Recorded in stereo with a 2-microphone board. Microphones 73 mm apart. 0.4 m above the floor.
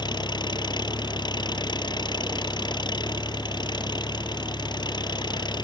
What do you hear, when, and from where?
0.0 s an engine running: 80° left